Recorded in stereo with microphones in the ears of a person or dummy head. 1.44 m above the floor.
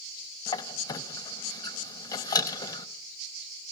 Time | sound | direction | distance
0.5 | a squeak | 20° left (ahead or behind) | 1.1 m